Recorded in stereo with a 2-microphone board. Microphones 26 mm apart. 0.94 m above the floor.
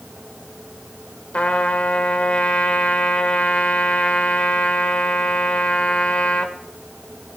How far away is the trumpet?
About 1.6 m.